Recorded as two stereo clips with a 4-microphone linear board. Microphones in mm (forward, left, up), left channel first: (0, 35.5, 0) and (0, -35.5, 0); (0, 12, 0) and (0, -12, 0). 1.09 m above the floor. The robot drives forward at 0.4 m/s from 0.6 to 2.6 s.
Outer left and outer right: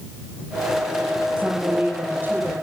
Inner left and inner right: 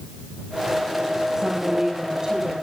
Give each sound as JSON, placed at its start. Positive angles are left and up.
{"t": 1.4, "sound": "a woman speaking", "side_deg": -30, "distance_m": 5.5}